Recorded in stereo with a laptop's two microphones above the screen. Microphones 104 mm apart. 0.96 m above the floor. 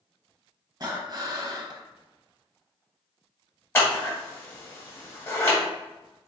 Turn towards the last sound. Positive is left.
turn(degrees=25)  # may be behind; listen again after turning